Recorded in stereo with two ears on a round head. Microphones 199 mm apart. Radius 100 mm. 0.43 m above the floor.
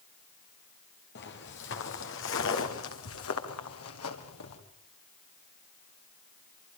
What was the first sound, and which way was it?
Footsteps, 50° left (ahead or behind).